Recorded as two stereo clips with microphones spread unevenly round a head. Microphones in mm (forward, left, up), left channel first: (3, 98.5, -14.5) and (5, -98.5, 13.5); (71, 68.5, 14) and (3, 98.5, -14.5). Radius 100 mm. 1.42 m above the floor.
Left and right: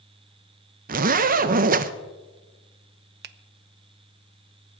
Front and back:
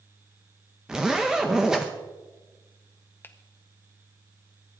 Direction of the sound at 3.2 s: 75° right.